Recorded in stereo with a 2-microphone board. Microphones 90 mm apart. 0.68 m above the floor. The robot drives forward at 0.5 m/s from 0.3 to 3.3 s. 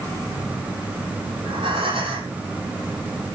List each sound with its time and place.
1.4 s breathing: 85° right, 4.5 m